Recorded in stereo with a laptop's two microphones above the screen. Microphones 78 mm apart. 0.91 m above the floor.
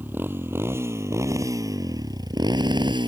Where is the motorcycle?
25° right (ahead or behind); by 3.1 s 75° right (ahead or behind).